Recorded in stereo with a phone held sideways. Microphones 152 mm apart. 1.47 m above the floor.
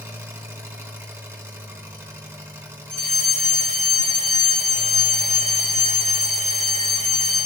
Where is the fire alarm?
70° right (ahead or behind), 4 m.